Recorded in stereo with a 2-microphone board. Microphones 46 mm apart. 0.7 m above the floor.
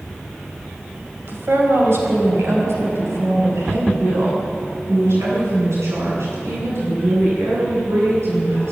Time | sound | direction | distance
1.3 | a woman speaking | 60° right (ahead or behind) | 4.5 m